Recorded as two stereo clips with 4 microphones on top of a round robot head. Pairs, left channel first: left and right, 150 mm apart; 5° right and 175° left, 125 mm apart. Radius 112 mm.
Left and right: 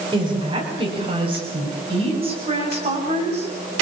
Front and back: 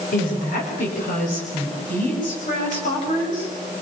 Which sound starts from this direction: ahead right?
A woman speaking, at 0.1 s.